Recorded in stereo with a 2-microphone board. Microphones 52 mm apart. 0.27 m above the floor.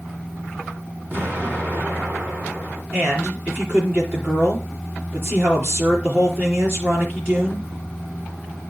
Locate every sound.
1.1 s an explosion: 40° right (ahead or behind), 2.5 m
2.9 s a man speaking: 45° right (ahead or behind), 4 m